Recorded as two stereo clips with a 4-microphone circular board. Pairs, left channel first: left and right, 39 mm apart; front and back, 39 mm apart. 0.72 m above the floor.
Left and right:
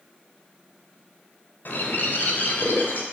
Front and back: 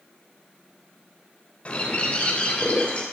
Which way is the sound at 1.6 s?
55° left.